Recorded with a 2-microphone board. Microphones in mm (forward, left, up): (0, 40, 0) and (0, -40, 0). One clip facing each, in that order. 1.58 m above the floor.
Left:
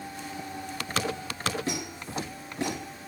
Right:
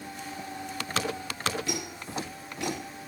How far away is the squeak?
About 4 m.